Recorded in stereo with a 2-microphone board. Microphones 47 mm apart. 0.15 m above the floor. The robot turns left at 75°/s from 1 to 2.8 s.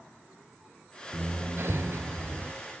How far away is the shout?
I don't hear a shout.